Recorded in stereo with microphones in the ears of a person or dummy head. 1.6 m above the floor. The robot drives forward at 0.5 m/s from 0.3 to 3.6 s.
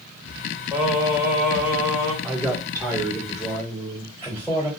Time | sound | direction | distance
0.7 | singing | 15° right (ahead or behind) | 2 m
2.2 | a man speaking | 15° right (ahead or behind) | 1.7 m